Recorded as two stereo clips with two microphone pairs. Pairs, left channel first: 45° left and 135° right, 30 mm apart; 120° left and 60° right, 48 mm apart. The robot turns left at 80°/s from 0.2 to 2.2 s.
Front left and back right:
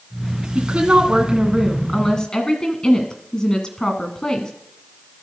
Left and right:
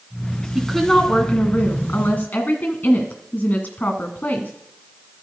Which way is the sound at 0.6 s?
140° right.